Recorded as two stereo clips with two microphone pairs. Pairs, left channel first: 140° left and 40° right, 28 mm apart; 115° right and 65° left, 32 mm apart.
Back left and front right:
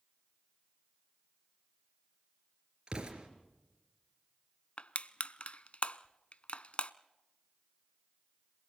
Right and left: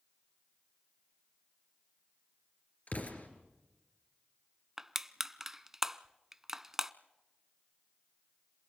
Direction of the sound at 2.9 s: 90° right.